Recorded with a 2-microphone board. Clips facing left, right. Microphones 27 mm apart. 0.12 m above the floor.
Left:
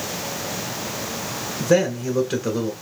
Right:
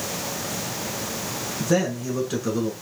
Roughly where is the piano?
I don't hear a piano.